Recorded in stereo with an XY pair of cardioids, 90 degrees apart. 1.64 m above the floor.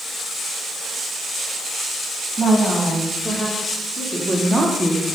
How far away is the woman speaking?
About 2.5 m.